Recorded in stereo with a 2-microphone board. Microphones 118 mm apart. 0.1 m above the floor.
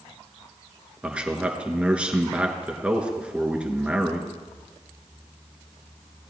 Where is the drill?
No drill in this recording.